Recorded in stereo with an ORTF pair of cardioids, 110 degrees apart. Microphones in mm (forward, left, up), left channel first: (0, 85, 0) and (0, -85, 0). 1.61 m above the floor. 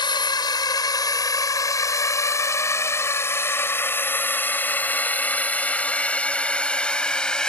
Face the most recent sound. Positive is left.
turn(degrees=5)